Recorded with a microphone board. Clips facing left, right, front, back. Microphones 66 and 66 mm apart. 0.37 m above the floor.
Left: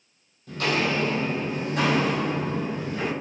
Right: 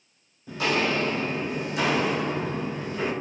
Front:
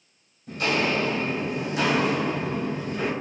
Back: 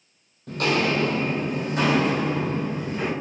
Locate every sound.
0.5 s footsteps: 165° right, 0.7 m; by 3.1 s 115° left, 1.9 m